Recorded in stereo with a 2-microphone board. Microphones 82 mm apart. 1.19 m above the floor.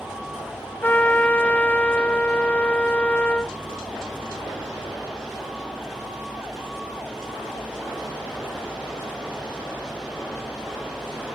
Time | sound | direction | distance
0.8 | a trumpet | 20° left (ahead or behind) | ?